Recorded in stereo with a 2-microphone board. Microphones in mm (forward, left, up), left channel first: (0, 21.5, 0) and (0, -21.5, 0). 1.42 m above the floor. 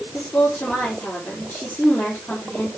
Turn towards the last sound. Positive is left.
turn(degrees=50)  # may be behind; listen again after turning